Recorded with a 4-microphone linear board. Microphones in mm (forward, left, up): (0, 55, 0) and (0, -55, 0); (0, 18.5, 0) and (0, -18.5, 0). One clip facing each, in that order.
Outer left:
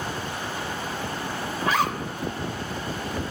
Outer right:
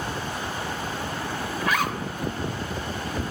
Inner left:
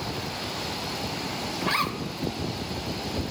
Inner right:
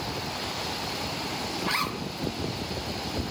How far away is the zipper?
About 1.0 m.